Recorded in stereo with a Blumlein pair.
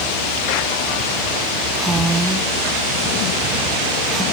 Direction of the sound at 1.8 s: 5° right.